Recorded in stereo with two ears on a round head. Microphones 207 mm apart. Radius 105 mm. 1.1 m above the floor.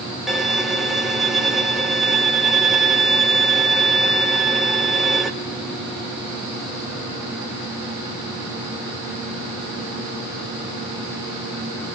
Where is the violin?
Centre (ahead or behind), 1.2 m.